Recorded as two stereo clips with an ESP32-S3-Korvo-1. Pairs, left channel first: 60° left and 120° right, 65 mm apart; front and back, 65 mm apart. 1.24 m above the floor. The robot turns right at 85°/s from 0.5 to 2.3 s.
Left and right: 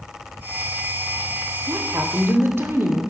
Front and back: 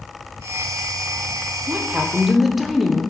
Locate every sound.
1.7 s a woman speaking: 145° right, 0.6 m; by 3.0 s 90° right, 0.6 m